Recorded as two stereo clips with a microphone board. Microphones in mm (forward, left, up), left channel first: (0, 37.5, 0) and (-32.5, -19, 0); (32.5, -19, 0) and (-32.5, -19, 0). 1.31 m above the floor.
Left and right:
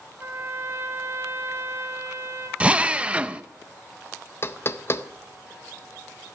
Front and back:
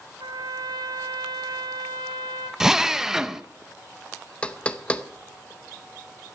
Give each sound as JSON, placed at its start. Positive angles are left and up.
{"t": 0.2, "sound": "a trumpet", "azimuth_deg": -175, "distance_m": 1.3}
{"t": 2.6, "sound": "a drill", "azimuth_deg": -115, "distance_m": 0.5}
{"t": 4.4, "sound": "knocking", "azimuth_deg": 60, "distance_m": 0.6}